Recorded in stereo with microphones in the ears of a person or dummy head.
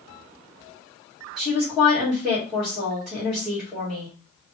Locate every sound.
1.4 s a woman speaking: 10° right (ahead or behind), 1.6 m